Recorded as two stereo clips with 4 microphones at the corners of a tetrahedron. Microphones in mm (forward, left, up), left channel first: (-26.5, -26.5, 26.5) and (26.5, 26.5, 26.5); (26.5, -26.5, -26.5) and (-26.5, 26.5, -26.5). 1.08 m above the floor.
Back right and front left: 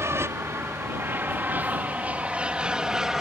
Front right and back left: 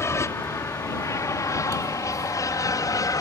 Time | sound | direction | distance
0.0 | an aircraft | straight ahead | ?